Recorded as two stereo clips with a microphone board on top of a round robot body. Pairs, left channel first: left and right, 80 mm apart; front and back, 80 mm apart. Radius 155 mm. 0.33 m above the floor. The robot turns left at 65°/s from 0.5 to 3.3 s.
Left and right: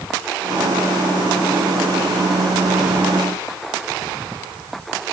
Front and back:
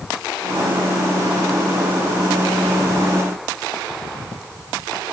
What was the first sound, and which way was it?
Only background noise.